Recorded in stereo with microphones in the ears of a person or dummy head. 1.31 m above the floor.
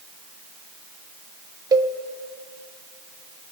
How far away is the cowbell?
About 0.7 m.